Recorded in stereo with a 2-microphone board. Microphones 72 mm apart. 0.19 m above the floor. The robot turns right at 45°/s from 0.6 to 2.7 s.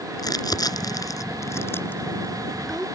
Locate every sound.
0.2 s crumpling: 60° left (ahead or behind); by 2.9 s 5° right (ahead or behind)